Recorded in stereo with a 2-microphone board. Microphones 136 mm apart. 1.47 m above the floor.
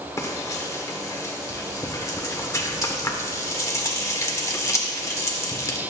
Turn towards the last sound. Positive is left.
turn(degrees=20)  # may be behind; listen again after turning